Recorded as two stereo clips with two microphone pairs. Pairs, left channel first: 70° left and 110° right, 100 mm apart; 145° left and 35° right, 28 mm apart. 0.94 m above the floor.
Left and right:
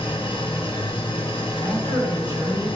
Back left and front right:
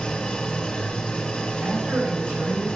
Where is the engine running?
95° left, 1.7 m.